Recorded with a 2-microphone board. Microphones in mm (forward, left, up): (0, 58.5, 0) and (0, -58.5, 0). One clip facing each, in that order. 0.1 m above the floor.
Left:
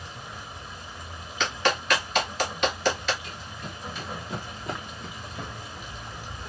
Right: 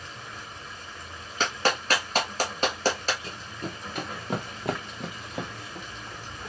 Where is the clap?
40° right (ahead or behind), 1.5 m.